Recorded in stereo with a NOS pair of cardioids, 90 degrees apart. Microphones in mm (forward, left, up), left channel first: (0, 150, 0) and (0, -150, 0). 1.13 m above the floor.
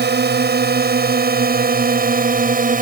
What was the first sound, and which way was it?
A drone, 35° right.